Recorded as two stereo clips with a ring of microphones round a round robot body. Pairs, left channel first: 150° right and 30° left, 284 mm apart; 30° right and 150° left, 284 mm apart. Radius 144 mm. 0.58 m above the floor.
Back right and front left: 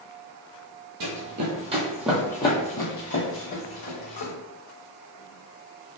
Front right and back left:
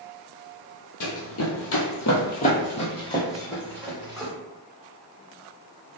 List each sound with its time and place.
1.0 s running footsteps: straight ahead, 0.9 m; by 4.3 s 120° right, 1.5 m